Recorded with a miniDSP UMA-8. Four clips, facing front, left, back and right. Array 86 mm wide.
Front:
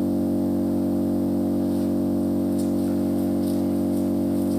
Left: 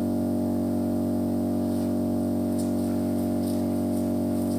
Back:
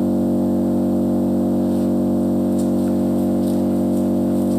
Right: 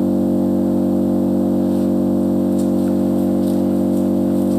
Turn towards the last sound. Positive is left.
turn(degrees=-115)